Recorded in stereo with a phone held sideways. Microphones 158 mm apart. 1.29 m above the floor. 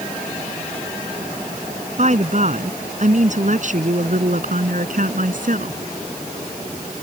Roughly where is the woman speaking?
Right.